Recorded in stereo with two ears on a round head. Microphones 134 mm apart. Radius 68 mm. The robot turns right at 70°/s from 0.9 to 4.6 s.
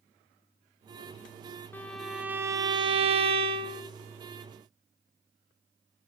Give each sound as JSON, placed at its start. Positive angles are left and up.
{"t": 1.7, "sound": "a violin", "azimuth_deg": 160, "distance_m": 0.7}